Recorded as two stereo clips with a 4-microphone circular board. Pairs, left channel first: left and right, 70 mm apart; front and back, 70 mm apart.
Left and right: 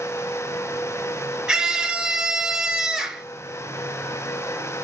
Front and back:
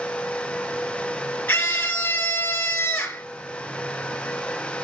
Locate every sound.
1.5 s a scream: 25° right, 1.2 m